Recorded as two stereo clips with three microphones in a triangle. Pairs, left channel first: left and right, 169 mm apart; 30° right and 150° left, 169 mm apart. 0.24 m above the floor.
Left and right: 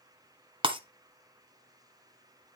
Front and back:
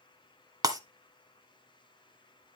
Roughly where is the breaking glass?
Behind right.